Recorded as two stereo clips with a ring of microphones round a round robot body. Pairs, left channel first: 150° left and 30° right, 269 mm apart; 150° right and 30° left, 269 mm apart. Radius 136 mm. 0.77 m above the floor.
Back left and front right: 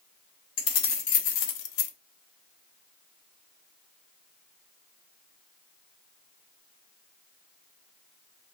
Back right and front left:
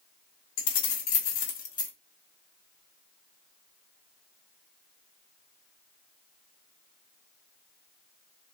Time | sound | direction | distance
0.6 | keys jangling | 170° right | 1.6 m